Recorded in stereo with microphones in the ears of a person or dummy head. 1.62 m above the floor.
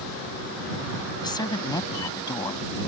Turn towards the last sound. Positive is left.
turn(degrees=20)  # may be behind; listen again after turning